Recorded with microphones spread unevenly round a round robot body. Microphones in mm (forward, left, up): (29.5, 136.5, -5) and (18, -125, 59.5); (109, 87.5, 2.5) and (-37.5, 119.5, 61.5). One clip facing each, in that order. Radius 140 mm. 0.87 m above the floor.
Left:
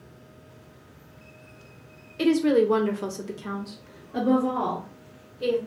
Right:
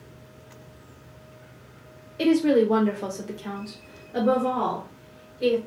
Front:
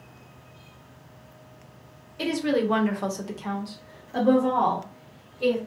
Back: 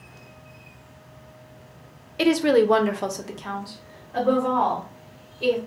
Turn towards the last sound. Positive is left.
turn(degrees=0)